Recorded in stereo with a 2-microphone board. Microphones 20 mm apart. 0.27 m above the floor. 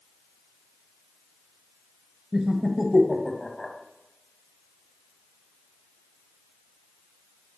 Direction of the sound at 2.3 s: 25° right (ahead or behind).